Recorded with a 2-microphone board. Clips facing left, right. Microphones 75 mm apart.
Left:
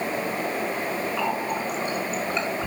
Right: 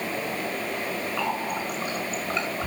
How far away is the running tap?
About 6 m.